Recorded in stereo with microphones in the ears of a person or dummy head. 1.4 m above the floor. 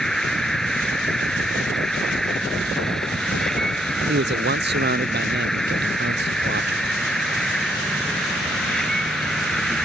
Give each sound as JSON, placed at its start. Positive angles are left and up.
{"t": 0.0, "sound": "an insect", "side_deg": 0}
{"t": 4.1, "sound": "a man speaking", "side_deg": -50}